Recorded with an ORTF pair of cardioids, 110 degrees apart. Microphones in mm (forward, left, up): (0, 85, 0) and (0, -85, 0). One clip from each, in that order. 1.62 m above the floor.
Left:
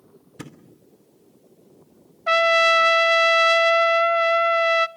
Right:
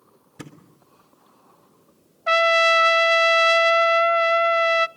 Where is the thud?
15° left, 3 m.